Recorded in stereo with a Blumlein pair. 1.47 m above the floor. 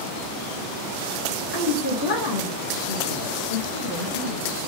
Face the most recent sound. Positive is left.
turn(degrees=45)